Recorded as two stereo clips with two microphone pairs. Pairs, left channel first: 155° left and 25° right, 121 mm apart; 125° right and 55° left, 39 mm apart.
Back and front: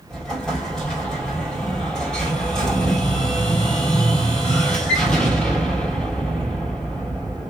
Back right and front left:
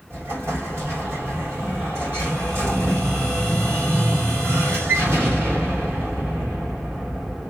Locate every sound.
0.1 s an explosion: 65° left, 2 m